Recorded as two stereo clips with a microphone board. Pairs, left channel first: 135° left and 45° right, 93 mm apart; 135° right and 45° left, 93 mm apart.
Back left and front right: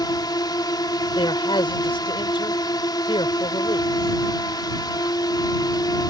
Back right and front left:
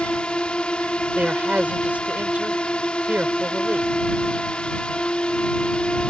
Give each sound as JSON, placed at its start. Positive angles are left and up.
{"t": 0.0, "sound": "a drone", "azimuth_deg": 150}
{"t": 1.1, "sound": "a man speaking", "azimuth_deg": 115}